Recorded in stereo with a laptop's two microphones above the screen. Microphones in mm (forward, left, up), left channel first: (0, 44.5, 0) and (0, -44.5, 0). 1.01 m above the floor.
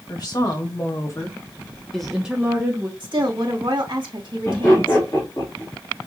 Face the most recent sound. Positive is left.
turn(degrees=35)  # may be behind; listen again after turning